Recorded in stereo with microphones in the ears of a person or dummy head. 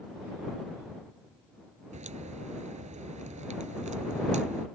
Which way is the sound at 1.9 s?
40° right (ahead or behind).